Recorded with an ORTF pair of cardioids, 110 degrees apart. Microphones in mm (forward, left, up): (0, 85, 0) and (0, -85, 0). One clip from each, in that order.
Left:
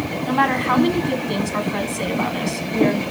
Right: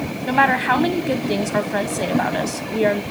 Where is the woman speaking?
15° right, 1.2 m.